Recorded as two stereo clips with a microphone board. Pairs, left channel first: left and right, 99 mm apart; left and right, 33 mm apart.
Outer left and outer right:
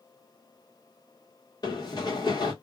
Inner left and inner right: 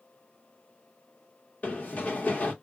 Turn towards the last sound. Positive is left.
turn(degrees=45)  # may be behind; listen again after turning